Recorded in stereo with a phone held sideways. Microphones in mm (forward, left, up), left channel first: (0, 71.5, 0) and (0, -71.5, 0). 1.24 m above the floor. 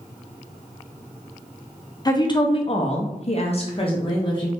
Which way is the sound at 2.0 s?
30° left (ahead or behind).